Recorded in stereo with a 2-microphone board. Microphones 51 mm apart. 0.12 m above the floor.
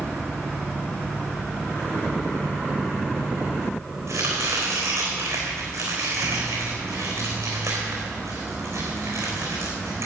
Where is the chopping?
75° right (ahead or behind), 3.5 m.